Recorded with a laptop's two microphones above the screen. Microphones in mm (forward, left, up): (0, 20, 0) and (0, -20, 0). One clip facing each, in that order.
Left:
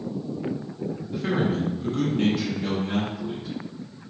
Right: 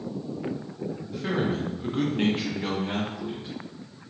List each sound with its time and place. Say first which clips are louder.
1.1 s a man speaking: left 3 dB; 10° left (ahead or behind), 1.2 m; by 4.0 s 75° right (ahead or behind), 2 m